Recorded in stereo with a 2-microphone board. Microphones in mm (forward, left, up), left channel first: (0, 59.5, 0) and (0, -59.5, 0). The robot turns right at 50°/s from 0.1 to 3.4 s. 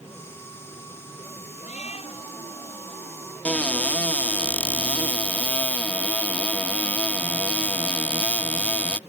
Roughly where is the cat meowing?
Left.